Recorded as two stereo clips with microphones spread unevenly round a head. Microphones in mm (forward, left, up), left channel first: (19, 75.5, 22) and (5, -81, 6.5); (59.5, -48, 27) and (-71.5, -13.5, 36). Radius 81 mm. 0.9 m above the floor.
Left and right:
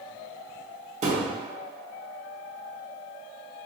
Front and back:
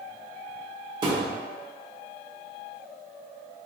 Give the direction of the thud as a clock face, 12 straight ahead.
5 o'clock.